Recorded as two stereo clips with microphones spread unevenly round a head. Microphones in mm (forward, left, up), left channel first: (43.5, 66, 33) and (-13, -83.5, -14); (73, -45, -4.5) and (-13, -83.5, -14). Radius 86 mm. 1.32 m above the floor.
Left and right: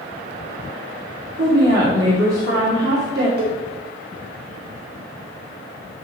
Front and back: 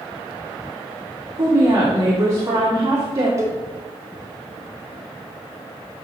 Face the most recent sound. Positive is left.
turn(degrees=-100)